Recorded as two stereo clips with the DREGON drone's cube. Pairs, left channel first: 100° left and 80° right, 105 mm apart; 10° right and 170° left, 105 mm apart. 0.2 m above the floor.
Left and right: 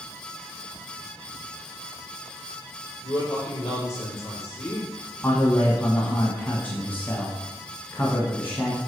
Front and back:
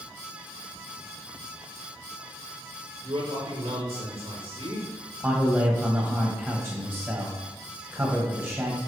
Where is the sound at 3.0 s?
155° left, 4 m.